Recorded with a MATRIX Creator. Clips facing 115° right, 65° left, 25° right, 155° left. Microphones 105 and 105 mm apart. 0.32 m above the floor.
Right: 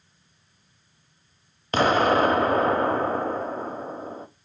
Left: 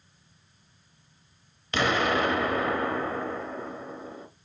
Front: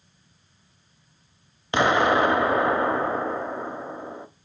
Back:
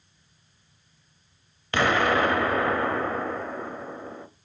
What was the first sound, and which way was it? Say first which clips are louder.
An explosion: right 6 dB, front 3 dB; 85° right.